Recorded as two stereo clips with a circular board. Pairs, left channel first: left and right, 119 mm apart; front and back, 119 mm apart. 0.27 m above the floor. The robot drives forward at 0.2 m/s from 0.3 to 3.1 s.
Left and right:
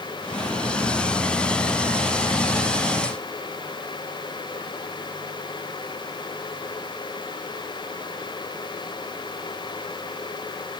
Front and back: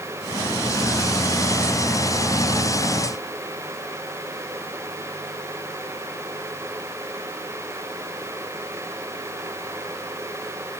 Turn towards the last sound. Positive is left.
No sound to turn to.